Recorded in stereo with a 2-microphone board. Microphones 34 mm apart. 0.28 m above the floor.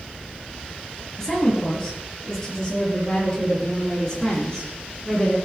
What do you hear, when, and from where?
1.2 s a woman speaking: 10° left (ahead or behind), 5 m; by 5.3 s 25° left (ahead or behind), 8 m